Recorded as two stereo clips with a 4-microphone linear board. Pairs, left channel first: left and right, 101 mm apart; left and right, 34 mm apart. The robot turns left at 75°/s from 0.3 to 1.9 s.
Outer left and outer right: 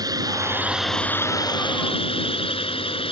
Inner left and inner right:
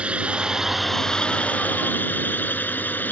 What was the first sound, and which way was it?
A drone, 140° right.